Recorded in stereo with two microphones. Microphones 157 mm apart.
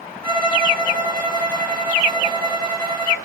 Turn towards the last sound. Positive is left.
turn(degrees=-65)  # may be behind; listen again after turning